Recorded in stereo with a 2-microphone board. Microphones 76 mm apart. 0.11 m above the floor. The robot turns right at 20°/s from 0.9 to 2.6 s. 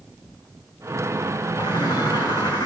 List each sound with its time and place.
1.6 s a bird: 85° left, 3 m; by 2.7 s 65° left (ahead or behind), 3 m